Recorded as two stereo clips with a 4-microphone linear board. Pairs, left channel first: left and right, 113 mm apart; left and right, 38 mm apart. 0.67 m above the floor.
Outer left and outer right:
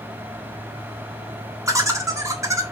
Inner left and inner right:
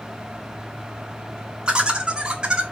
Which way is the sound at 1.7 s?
30° right (ahead or behind).